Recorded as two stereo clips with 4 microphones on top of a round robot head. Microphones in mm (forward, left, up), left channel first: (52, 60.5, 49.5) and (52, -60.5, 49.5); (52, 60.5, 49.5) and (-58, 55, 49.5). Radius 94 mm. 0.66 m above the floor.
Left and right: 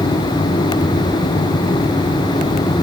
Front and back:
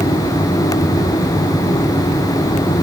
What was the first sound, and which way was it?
Only background noise.